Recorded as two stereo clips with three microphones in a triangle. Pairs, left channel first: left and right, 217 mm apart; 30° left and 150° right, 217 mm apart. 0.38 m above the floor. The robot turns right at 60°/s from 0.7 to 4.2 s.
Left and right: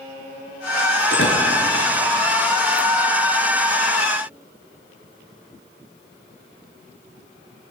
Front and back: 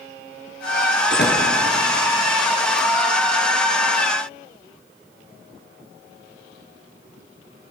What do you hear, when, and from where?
1.1 s a door slam: 65° left, 4.5 m; by 1.4 s 85° left, 4.5 m